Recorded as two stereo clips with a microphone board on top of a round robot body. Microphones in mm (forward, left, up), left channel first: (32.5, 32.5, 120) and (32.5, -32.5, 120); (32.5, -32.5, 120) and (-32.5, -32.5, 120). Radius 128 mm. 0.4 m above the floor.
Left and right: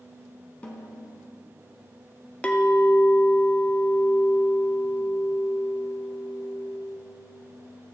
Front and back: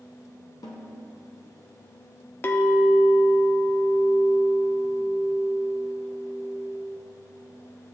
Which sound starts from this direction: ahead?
A snare drum, at 0.6 s.